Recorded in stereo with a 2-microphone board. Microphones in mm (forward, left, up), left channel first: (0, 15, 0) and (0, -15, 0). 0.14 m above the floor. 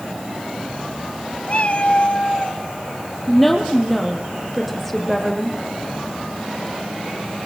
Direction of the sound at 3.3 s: 5° left (ahead or behind).